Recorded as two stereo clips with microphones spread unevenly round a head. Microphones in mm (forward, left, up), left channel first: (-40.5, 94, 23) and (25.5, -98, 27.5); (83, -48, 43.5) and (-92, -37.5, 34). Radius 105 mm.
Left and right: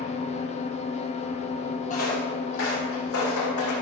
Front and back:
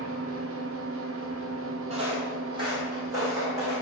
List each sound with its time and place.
0.0 s an engine running: 170° left, 0.9 m
1.9 s footsteps: 130° left, 2 m; by 3.7 s 100° left, 4 m